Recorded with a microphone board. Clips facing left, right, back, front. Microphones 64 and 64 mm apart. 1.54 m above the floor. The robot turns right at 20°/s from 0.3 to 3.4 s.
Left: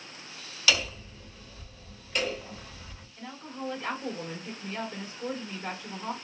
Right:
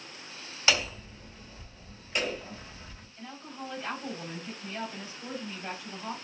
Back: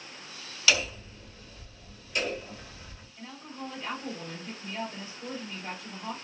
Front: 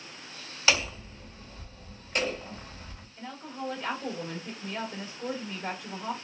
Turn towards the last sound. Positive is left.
turn(degrees=40)